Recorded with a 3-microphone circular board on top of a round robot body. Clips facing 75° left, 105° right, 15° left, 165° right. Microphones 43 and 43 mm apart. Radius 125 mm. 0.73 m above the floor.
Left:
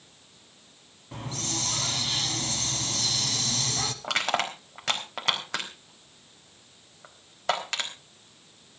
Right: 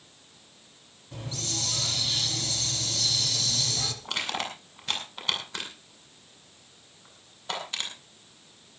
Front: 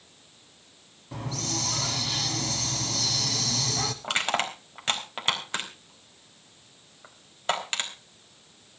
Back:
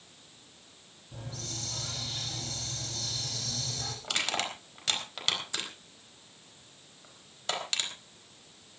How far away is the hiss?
About 1.2 m.